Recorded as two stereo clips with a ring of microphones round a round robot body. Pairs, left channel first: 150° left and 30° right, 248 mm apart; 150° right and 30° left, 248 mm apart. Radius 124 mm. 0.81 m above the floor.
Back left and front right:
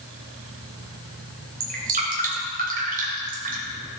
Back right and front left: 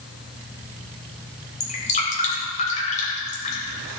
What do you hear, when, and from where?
1.6 s dripping: 85° right, 3 m